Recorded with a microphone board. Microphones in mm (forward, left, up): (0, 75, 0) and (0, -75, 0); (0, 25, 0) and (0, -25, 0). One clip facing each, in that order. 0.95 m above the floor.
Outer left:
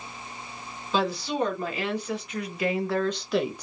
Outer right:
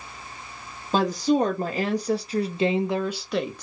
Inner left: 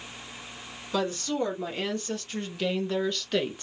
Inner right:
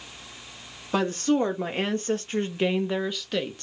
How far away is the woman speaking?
About 1.4 m.